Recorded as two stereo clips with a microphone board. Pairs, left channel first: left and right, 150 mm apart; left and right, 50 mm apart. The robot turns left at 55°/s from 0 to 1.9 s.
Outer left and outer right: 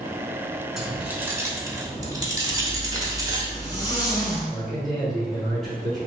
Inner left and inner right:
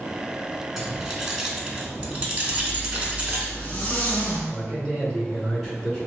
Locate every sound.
0.8 s keys jangling: centre (ahead or behind), 0.8 m; by 3.5 s 25° right (ahead or behind), 0.8 m
2.5 s a zipper: 25° left (ahead or behind), 1.0 m
4.5 s a man speaking: centre (ahead or behind), 1.4 m